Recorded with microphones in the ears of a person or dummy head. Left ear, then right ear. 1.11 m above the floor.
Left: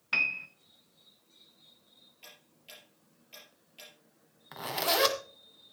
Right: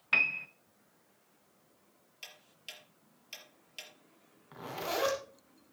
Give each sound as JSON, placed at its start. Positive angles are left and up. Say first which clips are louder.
{"t": 0.1, "sound": "a piano", "louder": "right 1 dB", "side_deg": -15, "distance_m": 0.8}
{"t": 2.2, "sound": "ticking", "louder": "right 6 dB", "side_deg": -50, "distance_m": 4.0}
{"t": 4.5, "sound": "a zipper", "louder": "left 7 dB", "side_deg": 35, "distance_m": 2.0}